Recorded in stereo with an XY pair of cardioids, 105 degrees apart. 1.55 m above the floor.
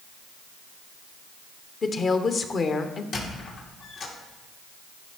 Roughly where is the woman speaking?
Ahead left.